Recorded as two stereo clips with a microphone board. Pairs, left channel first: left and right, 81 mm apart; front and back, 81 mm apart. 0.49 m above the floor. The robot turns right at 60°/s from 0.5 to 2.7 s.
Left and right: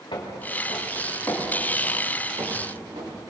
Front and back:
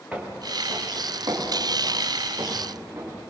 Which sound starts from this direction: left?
Footsteps, at 0.1 s.